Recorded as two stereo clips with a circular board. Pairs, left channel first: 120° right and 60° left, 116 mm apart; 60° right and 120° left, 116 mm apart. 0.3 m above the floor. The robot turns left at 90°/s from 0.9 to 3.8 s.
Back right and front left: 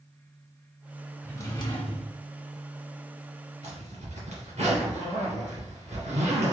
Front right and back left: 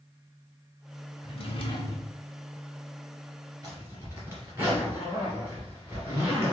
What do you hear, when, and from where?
1.2 s a drawer: 45° right, 1.1 m; by 2.2 s 130° right, 1.1 m
3.6 s a zipper: 65° left, 2.5 m; by 6.5 s 50° left, 2.5 m